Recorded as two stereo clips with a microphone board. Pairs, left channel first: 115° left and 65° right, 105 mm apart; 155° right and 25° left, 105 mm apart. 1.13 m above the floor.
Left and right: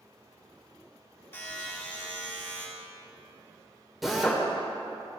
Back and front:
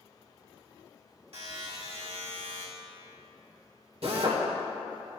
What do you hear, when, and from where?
1.3 s a buzzer: 45° left, 2 m
4.0 s a drill: 20° left, 1.4 m